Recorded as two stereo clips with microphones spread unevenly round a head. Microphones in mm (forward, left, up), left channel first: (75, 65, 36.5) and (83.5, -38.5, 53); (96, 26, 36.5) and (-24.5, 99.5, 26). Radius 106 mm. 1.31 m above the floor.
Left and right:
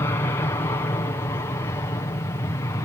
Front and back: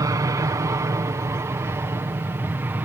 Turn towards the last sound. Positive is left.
turn(degrees=85)